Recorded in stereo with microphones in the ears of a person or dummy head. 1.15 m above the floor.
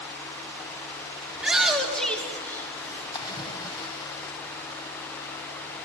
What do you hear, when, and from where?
1.3 s a shout: 5° right (ahead or behind), 3 m; by 3.0 s 15° left (ahead or behind), 3.5 m
3.1 s a splash: 25° left (ahead or behind), 1.7 m